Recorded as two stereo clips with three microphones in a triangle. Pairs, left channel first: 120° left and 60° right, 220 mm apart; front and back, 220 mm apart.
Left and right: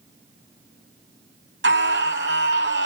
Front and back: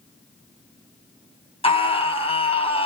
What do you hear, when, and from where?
1.6 s a scream: 60° right, 3 m